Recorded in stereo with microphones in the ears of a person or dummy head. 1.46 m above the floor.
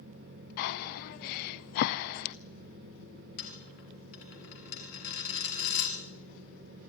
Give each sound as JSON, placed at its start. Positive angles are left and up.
{"t": 0.6, "sound": "breathing", "side_deg": 50, "distance_m": 0.5}
{"t": 3.4, "sound": "a dropped coin", "side_deg": 60, "distance_m": 3.5}